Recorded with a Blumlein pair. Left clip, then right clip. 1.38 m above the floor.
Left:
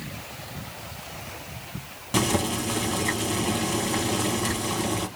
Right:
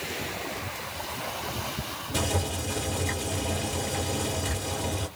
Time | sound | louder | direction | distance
2.1 | boiling | left 5 dB | 55° left | 1.9 m